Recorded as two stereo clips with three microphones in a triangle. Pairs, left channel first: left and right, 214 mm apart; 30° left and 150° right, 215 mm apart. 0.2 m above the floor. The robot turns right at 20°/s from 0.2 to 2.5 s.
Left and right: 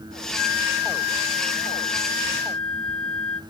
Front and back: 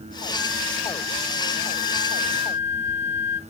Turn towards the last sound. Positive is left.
turn(degrees=-95)